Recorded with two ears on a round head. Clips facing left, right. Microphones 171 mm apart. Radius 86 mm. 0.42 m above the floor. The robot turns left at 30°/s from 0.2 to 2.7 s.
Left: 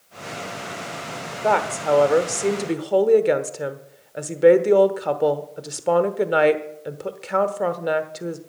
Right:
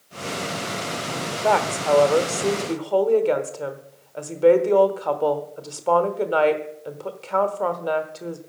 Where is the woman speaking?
Straight behind, 1.0 m; by 8.4 s 145° left, 1.0 m.